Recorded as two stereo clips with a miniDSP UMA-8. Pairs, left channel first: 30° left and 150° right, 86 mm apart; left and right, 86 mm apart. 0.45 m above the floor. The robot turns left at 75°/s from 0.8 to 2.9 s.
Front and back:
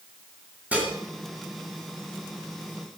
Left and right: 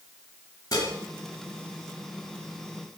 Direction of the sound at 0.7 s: 135° left.